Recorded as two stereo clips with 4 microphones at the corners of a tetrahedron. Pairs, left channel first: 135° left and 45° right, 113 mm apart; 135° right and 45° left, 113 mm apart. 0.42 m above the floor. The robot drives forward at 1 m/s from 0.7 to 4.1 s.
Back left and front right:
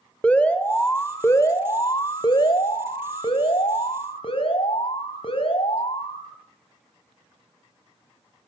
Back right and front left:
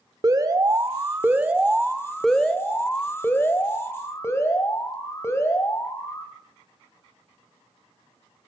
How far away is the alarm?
About 1.8 m.